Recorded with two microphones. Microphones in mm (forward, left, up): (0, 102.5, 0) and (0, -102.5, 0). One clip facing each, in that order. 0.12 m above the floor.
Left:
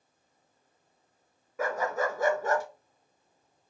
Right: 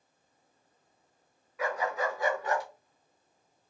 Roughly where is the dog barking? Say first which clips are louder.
Left 2 dB; left.